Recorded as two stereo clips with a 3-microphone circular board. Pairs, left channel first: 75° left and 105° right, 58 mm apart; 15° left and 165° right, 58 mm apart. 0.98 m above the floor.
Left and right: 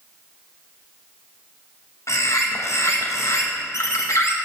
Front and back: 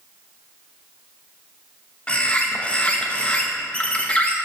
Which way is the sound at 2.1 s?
80° left.